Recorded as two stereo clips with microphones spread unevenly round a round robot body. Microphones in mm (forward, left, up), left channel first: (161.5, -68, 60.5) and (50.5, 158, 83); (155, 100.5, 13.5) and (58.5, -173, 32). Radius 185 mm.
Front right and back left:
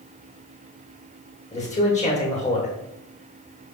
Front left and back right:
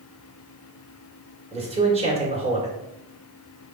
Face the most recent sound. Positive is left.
turn(degrees=-50)